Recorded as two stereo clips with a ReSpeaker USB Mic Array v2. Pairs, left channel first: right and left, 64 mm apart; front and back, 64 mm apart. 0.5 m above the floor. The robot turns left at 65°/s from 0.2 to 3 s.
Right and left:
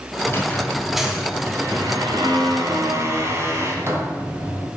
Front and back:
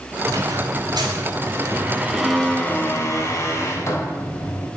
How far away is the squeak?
About 2.5 m.